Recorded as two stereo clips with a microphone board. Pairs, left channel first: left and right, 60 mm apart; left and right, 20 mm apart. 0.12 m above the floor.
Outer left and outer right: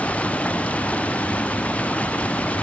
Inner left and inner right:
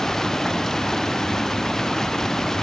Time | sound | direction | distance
0.0 | running water | 25° left (ahead or behind) | ?